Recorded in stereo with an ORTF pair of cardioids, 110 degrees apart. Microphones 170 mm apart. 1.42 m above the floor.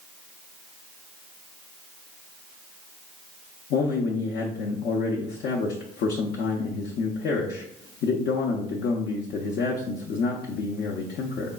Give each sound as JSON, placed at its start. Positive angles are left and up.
{"t": 3.7, "sound": "a man speaking", "azimuth_deg": 65, "distance_m": 0.7}